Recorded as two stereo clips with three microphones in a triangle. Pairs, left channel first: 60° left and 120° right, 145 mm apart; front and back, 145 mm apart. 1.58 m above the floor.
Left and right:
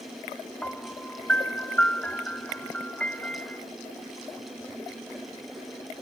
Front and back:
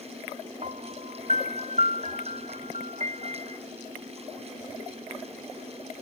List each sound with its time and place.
0.6 s a piano: 140° left